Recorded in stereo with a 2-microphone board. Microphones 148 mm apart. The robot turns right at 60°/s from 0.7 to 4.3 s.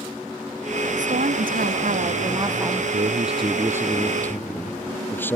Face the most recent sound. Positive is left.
turn(degrees=15)